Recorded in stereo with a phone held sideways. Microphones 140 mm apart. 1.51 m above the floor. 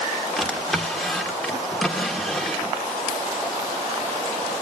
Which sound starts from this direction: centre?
A drawer, at 0.4 s.